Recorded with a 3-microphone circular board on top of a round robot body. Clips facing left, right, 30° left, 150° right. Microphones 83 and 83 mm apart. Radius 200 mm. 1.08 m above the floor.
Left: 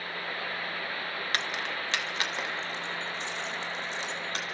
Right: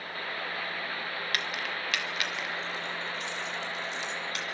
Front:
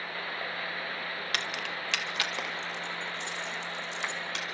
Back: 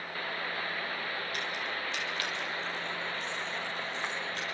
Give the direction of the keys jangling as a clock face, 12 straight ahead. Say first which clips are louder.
Left 2 dB, front 1 dB; 11 o'clock.